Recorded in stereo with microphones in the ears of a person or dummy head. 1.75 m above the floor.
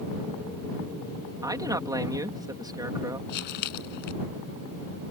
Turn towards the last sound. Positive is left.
turn(degrees=65)  # may be behind; listen again after turning